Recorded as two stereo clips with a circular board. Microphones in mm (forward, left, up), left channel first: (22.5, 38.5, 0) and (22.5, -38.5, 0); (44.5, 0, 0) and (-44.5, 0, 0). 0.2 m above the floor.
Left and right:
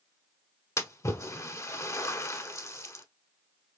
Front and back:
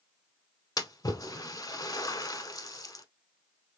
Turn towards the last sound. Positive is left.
turn(degrees=40)